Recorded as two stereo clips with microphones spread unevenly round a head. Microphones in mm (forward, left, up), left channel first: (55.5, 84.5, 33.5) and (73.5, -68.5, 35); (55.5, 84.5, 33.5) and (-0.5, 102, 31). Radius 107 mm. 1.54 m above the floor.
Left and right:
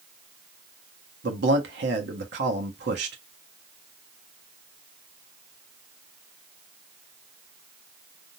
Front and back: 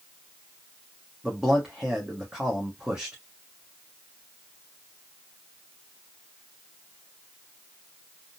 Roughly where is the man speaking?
Right.